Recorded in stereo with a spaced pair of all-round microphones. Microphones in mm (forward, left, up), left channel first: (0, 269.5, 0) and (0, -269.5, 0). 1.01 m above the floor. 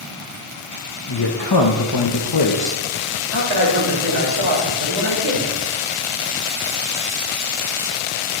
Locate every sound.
1.1 s a man speaking: 45° left (ahead or behind), 0.8 m
3.3 s a man speaking: 50° right (ahead or behind), 2.5 m